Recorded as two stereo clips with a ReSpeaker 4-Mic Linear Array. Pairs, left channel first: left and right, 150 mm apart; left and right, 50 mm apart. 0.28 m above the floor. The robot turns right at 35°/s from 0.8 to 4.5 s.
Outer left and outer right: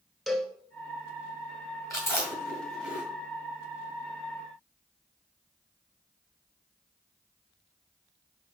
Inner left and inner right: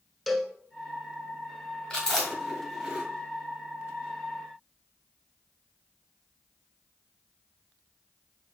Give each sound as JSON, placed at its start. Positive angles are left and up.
{"t": 0.3, "sound": "a cowbell", "side_deg": 0, "distance_m": 0.7}
{"t": 1.9, "sound": "chewing", "side_deg": 20, "distance_m": 3.0}